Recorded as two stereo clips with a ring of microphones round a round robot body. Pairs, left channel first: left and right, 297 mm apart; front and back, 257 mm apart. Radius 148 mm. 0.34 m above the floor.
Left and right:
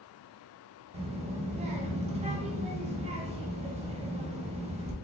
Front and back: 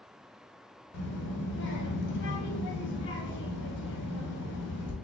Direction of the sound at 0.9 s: 30° right.